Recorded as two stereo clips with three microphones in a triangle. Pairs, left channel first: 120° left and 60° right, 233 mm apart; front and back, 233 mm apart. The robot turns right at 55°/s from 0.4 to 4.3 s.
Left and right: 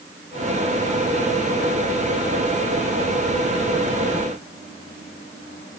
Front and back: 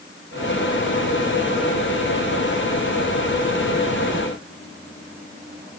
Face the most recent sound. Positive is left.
No sound to turn to.